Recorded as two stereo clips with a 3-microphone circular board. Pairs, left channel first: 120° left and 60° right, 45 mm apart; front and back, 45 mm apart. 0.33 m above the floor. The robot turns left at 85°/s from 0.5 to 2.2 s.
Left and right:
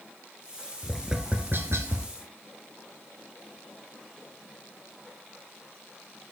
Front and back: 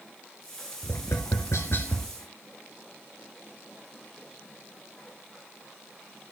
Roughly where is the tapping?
Ahead left.